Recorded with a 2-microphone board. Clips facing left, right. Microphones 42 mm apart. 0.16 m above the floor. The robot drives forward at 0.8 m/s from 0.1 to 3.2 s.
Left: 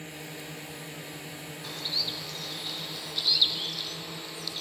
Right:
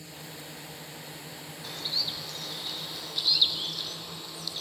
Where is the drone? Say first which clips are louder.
Left 3 dB; 45° left (ahead or behind).